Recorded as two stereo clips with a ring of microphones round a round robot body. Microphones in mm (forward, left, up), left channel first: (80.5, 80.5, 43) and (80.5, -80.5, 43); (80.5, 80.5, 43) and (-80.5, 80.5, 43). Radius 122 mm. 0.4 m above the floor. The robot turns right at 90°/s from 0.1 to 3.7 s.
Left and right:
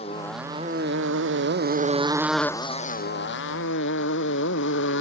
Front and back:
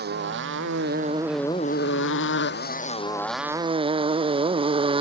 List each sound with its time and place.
0.0 s a motorcycle: 155° left; by 5.0 s 120° left